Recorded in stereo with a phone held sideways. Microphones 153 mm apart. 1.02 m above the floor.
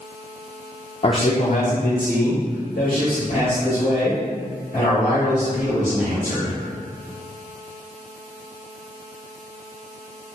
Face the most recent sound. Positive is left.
turn(degrees=60)  # may be behind; listen again after turning